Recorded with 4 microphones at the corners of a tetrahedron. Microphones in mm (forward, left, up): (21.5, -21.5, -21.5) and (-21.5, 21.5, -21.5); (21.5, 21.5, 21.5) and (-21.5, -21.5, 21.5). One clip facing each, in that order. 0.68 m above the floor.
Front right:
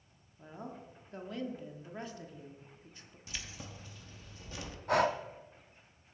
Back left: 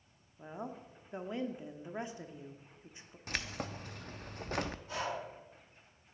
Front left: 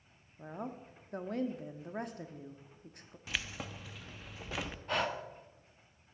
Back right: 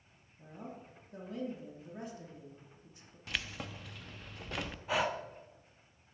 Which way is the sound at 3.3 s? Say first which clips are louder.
Back left 7 dB, even; 130° left.